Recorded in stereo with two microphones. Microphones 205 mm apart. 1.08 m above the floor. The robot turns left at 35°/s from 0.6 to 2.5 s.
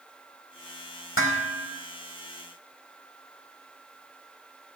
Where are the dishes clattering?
85° left, 4.5 m; by 1.7 s 70° left (ahead or behind), 4.5 m.